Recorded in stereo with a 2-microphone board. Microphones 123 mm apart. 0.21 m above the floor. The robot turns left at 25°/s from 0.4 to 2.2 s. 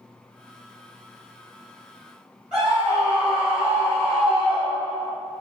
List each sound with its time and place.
2.5 s a scream: 10° right (ahead or behind), 1.3 m